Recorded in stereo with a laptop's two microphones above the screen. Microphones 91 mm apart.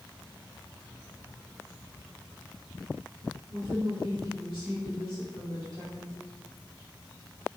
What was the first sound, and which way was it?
A woman speaking, 70° right (ahead or behind).